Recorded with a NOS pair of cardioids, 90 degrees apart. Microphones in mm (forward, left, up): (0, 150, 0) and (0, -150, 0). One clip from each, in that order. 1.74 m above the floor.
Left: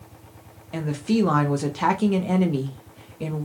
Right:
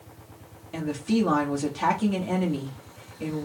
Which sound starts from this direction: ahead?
A woman speaking, at 0.7 s.